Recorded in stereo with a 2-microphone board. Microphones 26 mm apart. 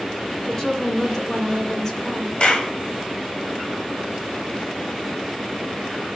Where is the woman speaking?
20° left (ahead or behind), 2.5 m.